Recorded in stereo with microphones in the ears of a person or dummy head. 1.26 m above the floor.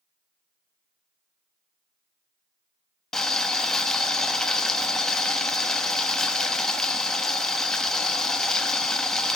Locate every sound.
3.1 s boiling: 5° left (ahead or behind), 1.3 m